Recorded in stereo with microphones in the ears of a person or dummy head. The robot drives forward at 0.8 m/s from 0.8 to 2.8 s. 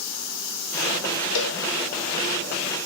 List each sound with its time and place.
1.4 s a cowbell: 65° left (ahead or behind), 1.6 m; by 1.6 s 70° left (ahead or behind), 1.5 m